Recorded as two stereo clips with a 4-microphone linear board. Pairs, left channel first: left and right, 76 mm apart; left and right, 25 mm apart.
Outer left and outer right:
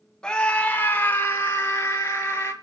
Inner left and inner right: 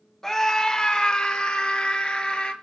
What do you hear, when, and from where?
0.2 s a scream: 10° left (ahead or behind), 1.3 m; by 2.5 s 35° left (ahead or behind), 4 m